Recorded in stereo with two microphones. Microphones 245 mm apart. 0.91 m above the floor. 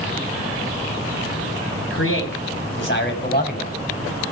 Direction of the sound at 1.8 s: 60° left (ahead or behind).